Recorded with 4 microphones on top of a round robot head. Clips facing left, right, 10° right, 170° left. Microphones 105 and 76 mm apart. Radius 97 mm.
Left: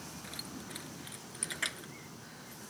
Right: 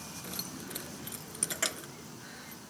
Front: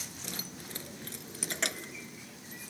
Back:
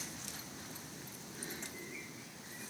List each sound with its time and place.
0.2 s keys jangling: 30° right